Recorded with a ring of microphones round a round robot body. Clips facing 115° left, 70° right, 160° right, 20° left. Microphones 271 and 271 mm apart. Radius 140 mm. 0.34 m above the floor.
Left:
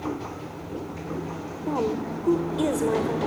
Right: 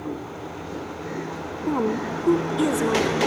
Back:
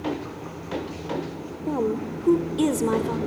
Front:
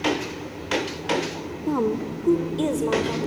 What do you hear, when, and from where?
1.7 s a woman speaking: 30° right, 1.0 m; by 3.2 s 130° right, 1.1 m